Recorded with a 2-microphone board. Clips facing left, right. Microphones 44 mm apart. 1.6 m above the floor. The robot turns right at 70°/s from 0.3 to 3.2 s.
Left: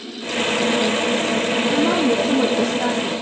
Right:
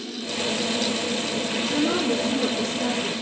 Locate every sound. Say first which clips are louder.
1.7 s a woman speaking: left 4 dB; 45° left, 2.5 m; by 3.1 s 145° left, 2.5 m